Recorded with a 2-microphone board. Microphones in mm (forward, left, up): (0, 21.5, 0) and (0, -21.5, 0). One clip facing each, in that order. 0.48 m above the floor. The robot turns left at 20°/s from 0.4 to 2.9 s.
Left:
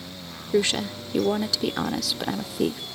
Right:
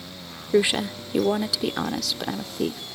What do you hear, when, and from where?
0.5 s a woman speaking: 155° right; by 2.8 s 160° left